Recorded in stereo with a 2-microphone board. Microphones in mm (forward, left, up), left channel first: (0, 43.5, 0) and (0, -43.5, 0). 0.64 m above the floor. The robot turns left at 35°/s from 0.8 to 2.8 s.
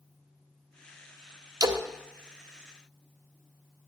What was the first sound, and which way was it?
A splash, 50° right (ahead or behind).